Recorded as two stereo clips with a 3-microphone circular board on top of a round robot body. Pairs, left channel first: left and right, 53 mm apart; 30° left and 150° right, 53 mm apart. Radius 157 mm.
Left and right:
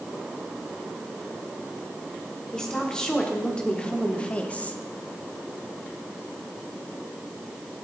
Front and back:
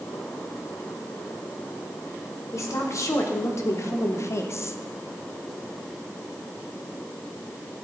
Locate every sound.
2.5 s a woman speaking: 15° left, 2 m; by 4.8 s 40° left, 1.0 m